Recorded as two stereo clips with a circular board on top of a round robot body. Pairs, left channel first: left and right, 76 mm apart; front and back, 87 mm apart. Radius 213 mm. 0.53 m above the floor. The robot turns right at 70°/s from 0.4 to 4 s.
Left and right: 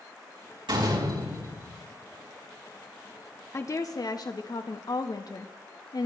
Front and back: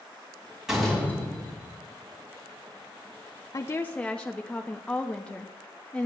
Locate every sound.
0.7 s a door slam: 95° right, 4 m; by 1.7 s 25° right, 4 m
3.5 s a woman speaking: 45° left, 0.9 m; by 6.1 s 75° left, 0.9 m